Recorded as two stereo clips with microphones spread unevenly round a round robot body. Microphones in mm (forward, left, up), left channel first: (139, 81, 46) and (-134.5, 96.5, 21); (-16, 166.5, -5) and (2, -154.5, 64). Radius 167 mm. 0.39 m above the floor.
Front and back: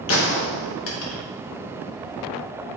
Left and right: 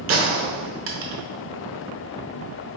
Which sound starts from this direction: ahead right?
A gunshot, at 0.1 s.